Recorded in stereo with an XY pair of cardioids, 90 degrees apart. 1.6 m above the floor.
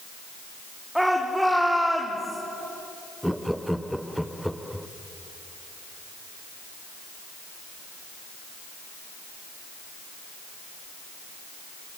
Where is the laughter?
Straight ahead, 1.1 m.